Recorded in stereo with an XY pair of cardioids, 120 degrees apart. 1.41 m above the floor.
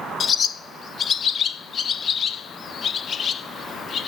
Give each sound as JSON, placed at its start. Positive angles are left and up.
{"t": 0.2, "sound": "a bird", "azimuth_deg": 40, "distance_m": 0.6}